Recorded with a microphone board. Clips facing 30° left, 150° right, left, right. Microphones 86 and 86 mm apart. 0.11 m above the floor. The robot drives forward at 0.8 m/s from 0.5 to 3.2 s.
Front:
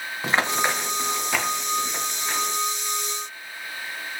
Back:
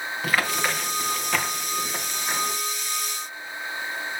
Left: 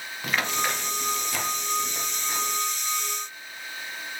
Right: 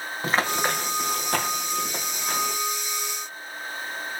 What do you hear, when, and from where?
0.2 s running footsteps: 35° right, 3 m; by 2.6 s 80° right, 3.5 m